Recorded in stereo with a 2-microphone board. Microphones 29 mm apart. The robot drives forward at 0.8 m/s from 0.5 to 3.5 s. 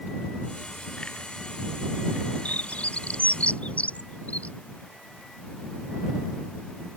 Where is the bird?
55° left (ahead or behind); by 4.5 s 50° left (ahead or behind).